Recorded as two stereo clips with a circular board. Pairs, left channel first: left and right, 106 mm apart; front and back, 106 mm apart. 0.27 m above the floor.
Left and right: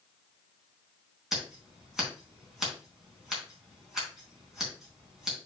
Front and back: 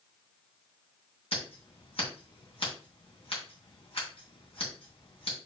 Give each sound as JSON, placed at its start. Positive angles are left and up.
{"t": 1.3, "sound": "scissors", "azimuth_deg": -5, "distance_m": 3.5}